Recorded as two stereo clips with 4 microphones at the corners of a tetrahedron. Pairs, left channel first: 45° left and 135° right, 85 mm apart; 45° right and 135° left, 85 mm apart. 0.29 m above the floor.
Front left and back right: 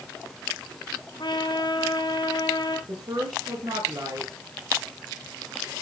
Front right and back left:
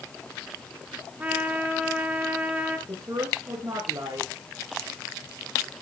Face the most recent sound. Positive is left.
turn(degrees=-170)